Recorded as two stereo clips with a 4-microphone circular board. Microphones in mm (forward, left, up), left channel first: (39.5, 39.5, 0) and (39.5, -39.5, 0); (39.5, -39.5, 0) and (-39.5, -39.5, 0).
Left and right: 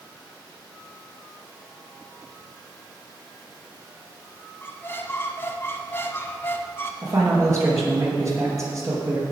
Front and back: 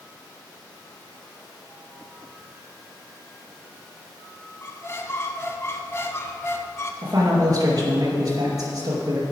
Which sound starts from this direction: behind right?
A man speaking, at 7.0 s.